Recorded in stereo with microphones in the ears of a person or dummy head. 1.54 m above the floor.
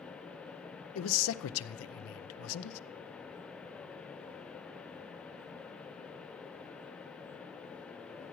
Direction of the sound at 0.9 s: 75° left (ahead or behind).